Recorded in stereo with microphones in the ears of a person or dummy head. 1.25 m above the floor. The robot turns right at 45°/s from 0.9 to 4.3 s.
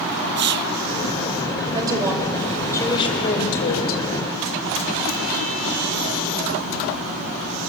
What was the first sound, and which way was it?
Whispering, 40° right (ahead or behind).